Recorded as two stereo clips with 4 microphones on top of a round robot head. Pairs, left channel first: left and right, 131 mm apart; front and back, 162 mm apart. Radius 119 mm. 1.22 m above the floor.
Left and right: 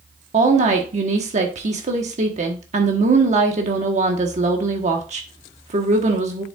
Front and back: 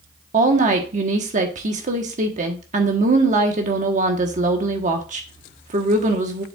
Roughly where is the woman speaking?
Behind right.